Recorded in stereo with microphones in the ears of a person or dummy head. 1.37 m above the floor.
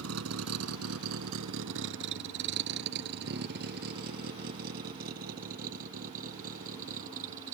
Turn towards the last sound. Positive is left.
turn(degrees=-40)  # may be behind; listen again after turning